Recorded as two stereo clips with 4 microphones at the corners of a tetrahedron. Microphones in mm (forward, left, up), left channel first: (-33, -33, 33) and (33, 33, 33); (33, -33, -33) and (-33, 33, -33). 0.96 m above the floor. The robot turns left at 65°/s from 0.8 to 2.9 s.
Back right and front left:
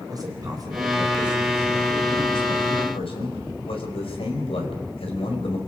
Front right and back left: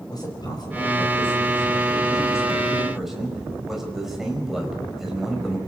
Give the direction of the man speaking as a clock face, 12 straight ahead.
12 o'clock.